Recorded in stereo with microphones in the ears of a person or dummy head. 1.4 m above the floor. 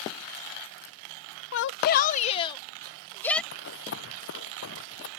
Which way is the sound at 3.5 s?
75° left (ahead or behind).